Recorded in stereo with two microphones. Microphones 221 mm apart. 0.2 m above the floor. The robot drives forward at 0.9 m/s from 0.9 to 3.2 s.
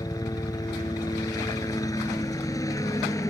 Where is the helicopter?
15° left (ahead or behind).